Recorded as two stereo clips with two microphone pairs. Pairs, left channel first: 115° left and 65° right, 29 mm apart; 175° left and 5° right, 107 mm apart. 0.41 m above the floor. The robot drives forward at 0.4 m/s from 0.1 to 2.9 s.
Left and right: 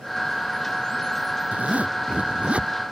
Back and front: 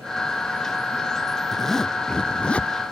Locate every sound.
1.5 s a zipper: 100° right; by 2.7 s 110° right